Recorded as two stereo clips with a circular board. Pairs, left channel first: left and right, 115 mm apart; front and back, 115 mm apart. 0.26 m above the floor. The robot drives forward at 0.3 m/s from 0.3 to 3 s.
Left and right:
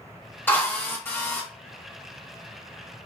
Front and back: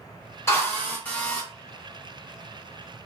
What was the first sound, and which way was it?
A drill, 40° left.